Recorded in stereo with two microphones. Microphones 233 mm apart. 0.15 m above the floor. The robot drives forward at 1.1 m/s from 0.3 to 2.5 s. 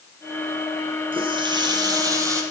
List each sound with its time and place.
1.1 s a running tap: 20° right (ahead or behind), 2 m; by 2.4 s 15° right (ahead or behind), 3.5 m